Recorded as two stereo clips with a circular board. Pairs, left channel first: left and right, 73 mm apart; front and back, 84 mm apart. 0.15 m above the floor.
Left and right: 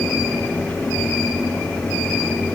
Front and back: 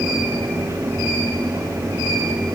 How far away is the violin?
No violin in this recording.